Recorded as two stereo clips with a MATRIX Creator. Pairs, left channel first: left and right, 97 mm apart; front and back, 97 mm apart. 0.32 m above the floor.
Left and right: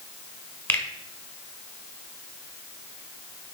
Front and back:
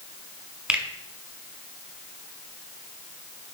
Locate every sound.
0.7 s a finger snap: 120° left, 1.3 m